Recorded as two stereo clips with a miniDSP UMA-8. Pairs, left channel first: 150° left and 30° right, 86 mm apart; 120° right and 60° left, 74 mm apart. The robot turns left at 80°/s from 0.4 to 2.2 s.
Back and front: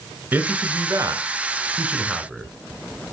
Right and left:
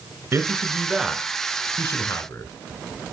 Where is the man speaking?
25° left, 1.5 m; by 2.5 s 120° right, 1.5 m.